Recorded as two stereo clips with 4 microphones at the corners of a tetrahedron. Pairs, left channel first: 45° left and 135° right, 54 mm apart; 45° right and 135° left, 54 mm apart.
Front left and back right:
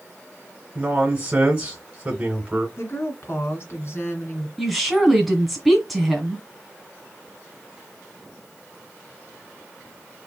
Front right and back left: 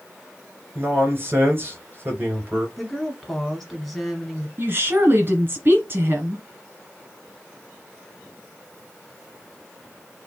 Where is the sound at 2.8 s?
40° left, 2 m.